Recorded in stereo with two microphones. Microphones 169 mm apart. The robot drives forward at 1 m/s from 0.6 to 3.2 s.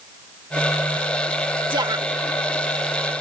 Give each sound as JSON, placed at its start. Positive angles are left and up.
{"t": 1.7, "sound": "a woman speaking", "side_deg": -30}